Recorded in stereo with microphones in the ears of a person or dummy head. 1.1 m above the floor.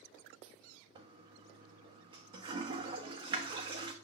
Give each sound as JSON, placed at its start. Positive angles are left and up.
{"t": 0.9, "sound": "a toilet flushing", "side_deg": -30, "distance_m": 0.6}